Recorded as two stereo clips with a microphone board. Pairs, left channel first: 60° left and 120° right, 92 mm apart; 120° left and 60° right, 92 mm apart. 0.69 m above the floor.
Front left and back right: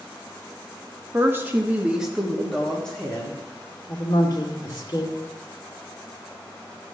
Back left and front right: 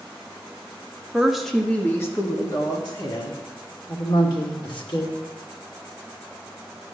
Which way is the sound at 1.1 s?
130° right.